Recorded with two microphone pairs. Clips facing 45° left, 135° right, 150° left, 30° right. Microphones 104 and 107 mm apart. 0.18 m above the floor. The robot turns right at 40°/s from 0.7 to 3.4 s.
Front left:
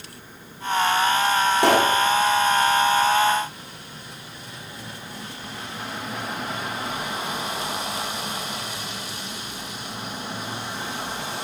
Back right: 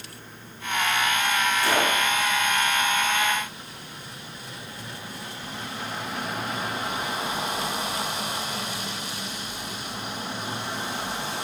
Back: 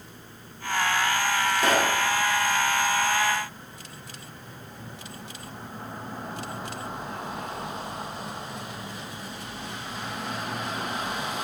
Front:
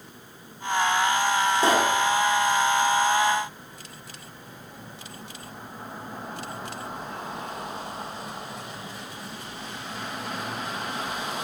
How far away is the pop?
About 1.8 m.